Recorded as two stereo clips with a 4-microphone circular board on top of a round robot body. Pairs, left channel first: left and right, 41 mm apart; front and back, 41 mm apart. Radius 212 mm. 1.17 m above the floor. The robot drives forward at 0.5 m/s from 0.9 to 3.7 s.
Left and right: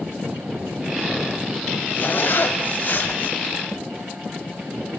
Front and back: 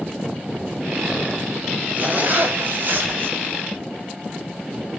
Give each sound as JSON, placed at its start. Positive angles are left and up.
{"t": 1.9, "sound": "a zipper", "azimuth_deg": 135, "distance_m": 2.0}